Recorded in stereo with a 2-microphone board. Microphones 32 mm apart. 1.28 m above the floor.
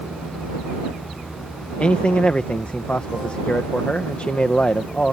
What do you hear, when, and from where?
1.8 s a man speaking: 40° left (ahead or behind)